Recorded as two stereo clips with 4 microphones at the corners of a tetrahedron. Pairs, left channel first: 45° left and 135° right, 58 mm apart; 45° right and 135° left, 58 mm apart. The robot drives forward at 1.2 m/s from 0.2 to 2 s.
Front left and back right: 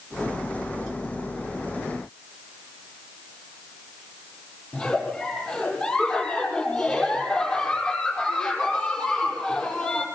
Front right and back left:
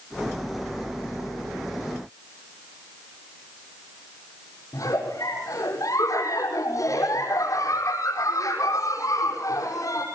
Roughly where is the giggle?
Ahead right.